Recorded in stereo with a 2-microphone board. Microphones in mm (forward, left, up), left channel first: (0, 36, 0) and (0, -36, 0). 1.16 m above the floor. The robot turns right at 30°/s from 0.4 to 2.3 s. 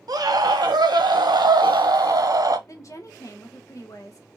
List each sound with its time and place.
0.1 s a scream: 115° right, 0.7 m; by 2.6 s 55° right, 0.7 m
2.7 s a woman speaking: 45° left (ahead or behind), 1.1 m